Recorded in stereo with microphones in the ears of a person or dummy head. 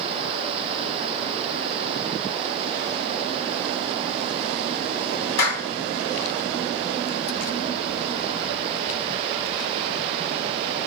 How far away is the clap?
About 1.7 m.